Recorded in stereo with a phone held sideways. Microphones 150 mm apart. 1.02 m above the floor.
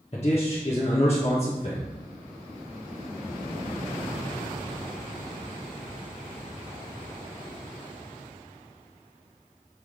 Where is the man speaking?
45° left (ahead or behind), 1.2 m.